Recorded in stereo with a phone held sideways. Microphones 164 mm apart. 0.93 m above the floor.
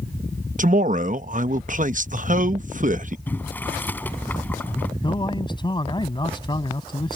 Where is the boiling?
10° left (ahead or behind).